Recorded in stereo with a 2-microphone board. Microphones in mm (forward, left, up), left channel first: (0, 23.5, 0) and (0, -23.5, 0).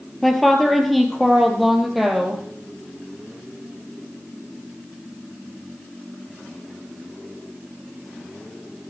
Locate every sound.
0.2 s a woman speaking: centre (ahead or behind), 2.5 m; by 2.4 s 5° right (ahead or behind), 4 m